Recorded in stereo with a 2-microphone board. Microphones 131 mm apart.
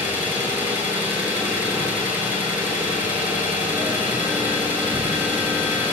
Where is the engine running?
15° right (ahead or behind), 1.9 m.